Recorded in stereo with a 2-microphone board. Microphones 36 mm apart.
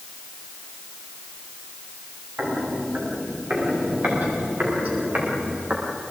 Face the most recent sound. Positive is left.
turn(degrees=-50)  # may be behind; listen again after turning